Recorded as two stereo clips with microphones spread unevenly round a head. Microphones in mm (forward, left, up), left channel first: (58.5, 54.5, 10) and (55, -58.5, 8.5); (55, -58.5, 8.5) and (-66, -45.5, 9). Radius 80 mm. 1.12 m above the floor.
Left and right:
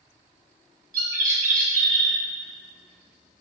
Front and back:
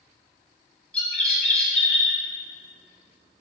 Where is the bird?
90° right, 1.1 m.